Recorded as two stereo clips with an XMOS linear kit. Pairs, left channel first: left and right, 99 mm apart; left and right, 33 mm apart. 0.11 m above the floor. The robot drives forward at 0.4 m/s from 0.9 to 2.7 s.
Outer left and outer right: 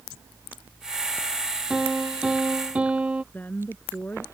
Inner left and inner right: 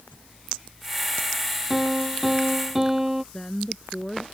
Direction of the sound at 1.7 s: 10° right (ahead or behind).